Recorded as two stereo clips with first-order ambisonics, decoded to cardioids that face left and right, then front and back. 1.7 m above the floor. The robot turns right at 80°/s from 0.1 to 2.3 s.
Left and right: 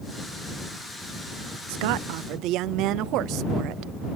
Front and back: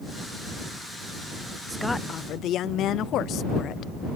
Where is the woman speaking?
100° right; by 3.9 s 50° right.